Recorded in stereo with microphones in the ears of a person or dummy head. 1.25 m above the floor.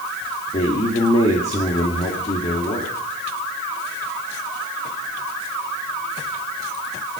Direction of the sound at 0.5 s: 25° left (ahead or behind).